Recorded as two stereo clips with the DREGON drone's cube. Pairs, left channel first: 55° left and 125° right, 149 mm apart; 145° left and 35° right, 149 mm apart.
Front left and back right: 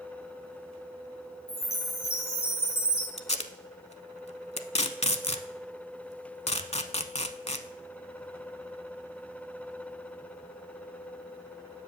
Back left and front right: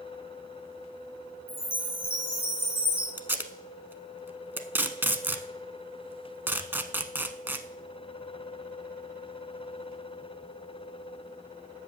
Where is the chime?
75° left, 2.5 m.